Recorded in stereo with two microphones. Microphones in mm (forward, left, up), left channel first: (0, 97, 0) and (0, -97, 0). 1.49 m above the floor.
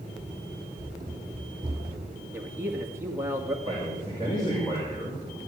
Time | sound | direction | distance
0.2 | running footsteps | 20° right (ahead or behind) | 2 m
2.3 | a man speaking | 15° right (ahead or behind) | 2.0 m
3.6 | a man speaking | 25° left (ahead or behind) | 5 m